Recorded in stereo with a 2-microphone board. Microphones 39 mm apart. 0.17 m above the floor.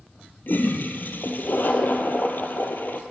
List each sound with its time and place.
0.5 s a toilet flushing: 55° left (ahead or behind), 1.8 m